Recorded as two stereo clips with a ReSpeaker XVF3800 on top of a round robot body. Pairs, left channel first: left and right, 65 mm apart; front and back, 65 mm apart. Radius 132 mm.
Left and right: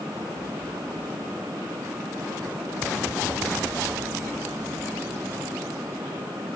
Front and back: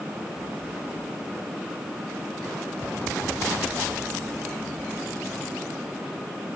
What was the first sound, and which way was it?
Only background noise.